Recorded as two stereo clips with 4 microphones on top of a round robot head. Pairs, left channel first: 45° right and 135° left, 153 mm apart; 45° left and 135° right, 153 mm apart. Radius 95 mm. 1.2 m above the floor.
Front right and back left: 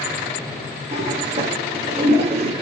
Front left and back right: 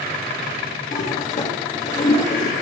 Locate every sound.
0.9 s a toilet flushing: 85° left, 1.8 m